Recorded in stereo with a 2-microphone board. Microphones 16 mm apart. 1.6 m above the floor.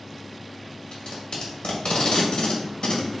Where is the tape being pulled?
70° left (ahead or behind), 2.0 m.